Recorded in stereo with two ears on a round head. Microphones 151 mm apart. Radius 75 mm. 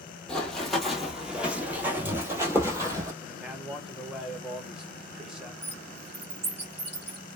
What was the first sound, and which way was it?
Running footsteps, 5° left (ahead or behind).